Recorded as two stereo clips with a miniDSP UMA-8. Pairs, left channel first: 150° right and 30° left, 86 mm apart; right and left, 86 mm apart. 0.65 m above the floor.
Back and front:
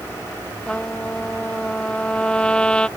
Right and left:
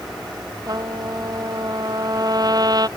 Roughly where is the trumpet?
Behind left.